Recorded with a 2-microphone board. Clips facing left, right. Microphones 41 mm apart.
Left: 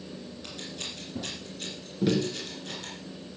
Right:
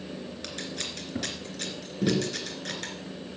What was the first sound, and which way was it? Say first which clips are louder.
Scissors: right 3 dB; 80° right.